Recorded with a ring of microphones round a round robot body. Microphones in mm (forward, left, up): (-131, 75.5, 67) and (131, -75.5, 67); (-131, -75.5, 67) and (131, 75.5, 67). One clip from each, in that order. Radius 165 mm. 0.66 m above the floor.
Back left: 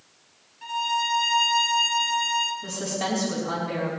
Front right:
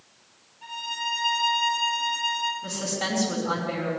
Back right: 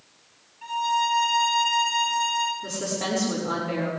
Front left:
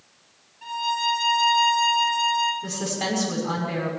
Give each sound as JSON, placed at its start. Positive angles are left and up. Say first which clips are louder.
{"t": 0.6, "sound": "a violin", "louder": "back left 5 dB, back right 1 dB", "azimuth_deg": 105, "distance_m": 3.5}
{"t": 2.6, "sound": "a woman speaking", "louder": "even, front left 1 dB", "azimuth_deg": 75, "distance_m": 6.0}